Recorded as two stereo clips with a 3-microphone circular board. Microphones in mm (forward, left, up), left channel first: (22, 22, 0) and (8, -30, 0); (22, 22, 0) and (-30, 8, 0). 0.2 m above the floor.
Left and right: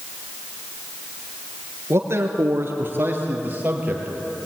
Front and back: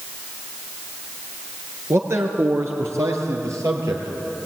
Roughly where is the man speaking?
Behind right.